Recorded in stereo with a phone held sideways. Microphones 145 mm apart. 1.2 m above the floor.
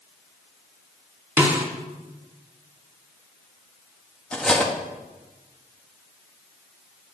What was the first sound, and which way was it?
A snare drum, 10° right (ahead or behind).